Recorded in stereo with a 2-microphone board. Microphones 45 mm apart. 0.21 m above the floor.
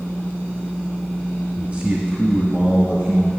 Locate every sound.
1.6 s a man speaking: 30° right (ahead or behind), 1.2 m; by 3.3 s 25° right (ahead or behind), 1.8 m